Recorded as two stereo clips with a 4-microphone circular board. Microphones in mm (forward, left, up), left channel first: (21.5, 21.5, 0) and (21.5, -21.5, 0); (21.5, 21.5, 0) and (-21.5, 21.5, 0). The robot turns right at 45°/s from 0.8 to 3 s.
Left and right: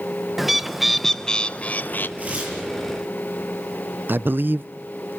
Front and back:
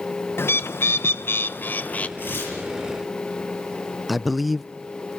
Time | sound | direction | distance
0.4 | a bird | 5° right | 0.8 m
2.2 | tearing paper | 40° right | 8.5 m
4.1 | a man speaking | 95° right | 0.5 m